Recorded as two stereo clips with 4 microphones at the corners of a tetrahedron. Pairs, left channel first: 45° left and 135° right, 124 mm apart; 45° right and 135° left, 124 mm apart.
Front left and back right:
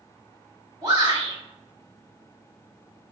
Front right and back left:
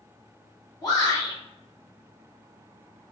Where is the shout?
90° right, 1.9 m.